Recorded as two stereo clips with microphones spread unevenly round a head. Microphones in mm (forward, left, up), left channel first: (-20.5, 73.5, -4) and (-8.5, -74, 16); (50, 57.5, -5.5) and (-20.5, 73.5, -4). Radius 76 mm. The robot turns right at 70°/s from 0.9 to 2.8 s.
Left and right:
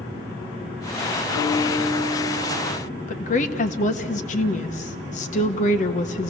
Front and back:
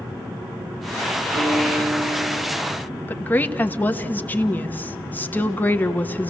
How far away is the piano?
About 10 m.